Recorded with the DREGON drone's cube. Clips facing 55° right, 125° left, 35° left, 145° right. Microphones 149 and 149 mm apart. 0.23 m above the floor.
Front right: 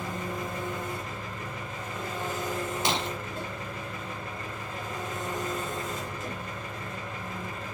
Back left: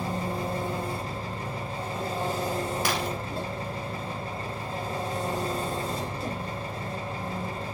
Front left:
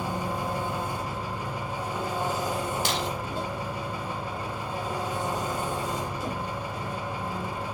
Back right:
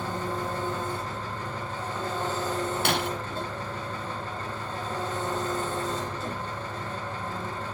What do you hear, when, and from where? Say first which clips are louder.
0.0 s an engine running: back left 4 dB, front left 1 dB; 100° left, 1.1 m
2.9 s breaking glass: back left 1 dB, back right 2 dB; 120° right, 0.5 m